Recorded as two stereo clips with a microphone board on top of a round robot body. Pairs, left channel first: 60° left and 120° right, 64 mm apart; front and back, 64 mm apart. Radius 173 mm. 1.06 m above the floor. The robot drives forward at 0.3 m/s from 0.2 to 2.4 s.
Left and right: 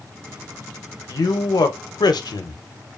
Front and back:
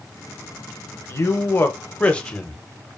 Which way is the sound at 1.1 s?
40° left.